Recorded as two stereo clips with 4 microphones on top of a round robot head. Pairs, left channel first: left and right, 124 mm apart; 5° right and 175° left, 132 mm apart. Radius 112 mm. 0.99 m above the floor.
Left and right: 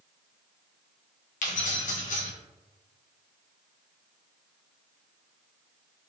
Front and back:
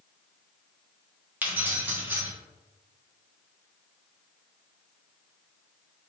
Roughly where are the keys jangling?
Left.